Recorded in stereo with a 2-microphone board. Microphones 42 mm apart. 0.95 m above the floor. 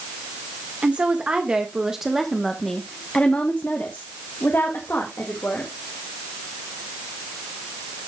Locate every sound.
0.8 s a woman speaking: 30° right (ahead or behind), 1.6 m; by 5.7 s 65° left (ahead or behind), 2 m